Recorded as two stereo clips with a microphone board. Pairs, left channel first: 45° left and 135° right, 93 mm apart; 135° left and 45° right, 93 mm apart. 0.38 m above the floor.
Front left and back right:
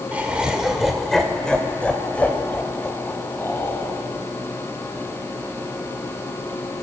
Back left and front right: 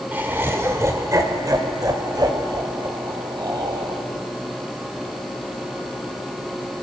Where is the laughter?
85° right, 1.4 m; by 4.0 s 15° right, 3 m.